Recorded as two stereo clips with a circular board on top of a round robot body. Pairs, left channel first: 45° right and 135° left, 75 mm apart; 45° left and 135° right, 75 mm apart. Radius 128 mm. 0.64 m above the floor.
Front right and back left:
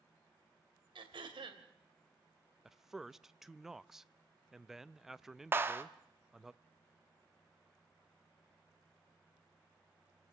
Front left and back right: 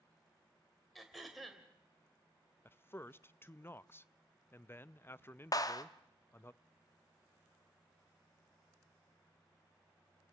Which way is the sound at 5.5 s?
75° left.